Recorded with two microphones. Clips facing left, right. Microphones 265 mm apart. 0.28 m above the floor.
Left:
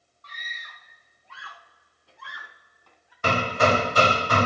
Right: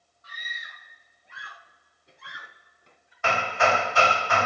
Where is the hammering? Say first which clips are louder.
Left 3 dB; 40° left (ahead or behind), 0.6 m.